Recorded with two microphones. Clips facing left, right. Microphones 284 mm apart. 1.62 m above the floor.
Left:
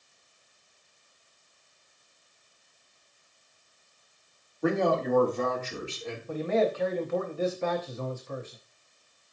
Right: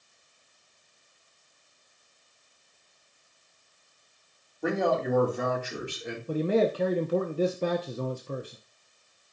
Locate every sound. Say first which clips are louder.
4.6 s a man speaking: left 1 dB; centre (ahead or behind), 3 m; by 6.2 s 20° right (ahead or behind), 3 m
6.3 s a man speaking: right 2 dB; 40° right (ahead or behind), 0.8 m